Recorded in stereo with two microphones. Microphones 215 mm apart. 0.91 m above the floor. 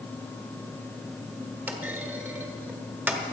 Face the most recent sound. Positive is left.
turn(degrees=-10)  # may be behind; listen again after turning